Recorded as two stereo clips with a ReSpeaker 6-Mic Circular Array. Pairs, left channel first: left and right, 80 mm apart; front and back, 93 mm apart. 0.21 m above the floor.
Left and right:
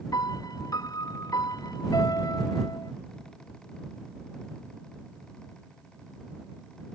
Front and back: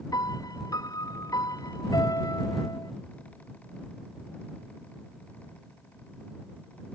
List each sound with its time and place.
0.1 s a piano: 50° left